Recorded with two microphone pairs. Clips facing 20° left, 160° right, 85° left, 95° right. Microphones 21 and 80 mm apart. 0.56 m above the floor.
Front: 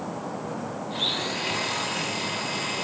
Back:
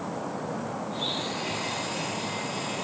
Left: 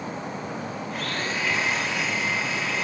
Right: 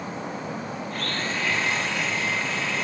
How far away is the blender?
About 0.6 m.